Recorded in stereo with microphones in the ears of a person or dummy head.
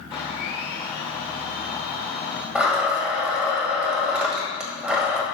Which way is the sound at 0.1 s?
35° left (ahead or behind).